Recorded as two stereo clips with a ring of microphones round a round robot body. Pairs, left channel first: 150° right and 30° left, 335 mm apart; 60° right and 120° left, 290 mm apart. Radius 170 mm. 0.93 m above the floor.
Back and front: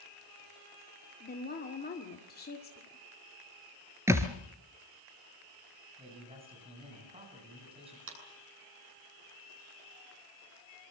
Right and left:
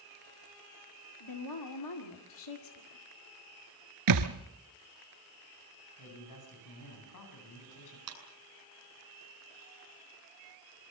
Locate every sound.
1.2 s a woman speaking: 85° right, 2 m
4.1 s a thud: 110° left, 2.5 m
6.0 s a man speaking: 45° right, 9 m
8.1 s a clap: 85° left, 8 m